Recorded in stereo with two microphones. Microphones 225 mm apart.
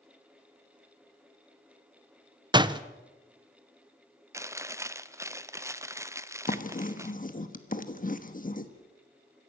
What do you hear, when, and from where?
2.5 s a door slam: 20° right (ahead or behind), 0.6 m
4.3 s chewing: 15° right (ahead or behind), 0.6 m
6.5 s writing: 35° left (ahead or behind), 1.3 m